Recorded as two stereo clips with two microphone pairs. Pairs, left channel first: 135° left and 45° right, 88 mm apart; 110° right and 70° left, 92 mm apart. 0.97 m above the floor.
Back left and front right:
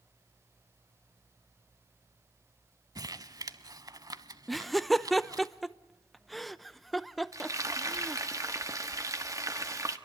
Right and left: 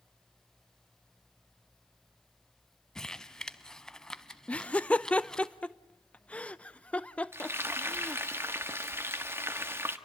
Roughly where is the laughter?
Behind right.